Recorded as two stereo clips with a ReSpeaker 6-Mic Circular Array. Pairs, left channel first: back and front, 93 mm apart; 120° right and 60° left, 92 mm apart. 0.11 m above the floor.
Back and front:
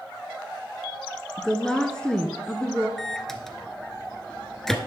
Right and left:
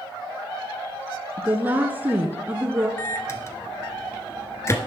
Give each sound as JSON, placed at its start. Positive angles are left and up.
{"t": 1.4, "sound": "a woman speaking", "azimuth_deg": 105, "distance_m": 1.2}
{"t": 3.0, "sound": "a microwave", "azimuth_deg": -95, "distance_m": 1.2}